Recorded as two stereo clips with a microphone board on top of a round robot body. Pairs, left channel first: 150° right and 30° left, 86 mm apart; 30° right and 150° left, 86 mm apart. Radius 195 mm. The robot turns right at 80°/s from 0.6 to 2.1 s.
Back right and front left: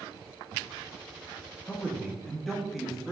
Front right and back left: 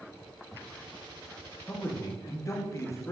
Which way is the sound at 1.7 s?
95° right.